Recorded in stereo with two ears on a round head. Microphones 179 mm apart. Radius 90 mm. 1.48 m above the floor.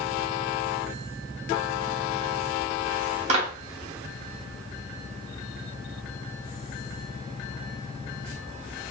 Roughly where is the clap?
Right.